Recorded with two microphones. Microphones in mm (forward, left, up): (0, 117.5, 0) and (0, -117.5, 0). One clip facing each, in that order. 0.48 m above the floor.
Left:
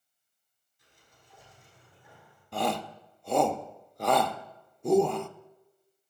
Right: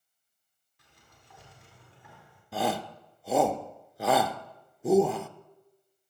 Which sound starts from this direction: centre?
A shout, at 2.5 s.